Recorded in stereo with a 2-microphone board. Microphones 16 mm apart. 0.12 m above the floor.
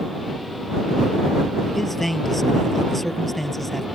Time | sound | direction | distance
1.7 | a man speaking | 5° left (ahead or behind) | ?